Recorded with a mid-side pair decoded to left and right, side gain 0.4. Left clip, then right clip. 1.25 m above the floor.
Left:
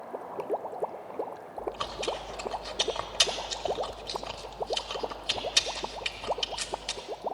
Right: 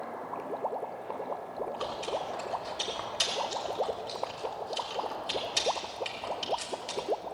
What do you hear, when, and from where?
1.6 s chewing: 45° left, 1.6 m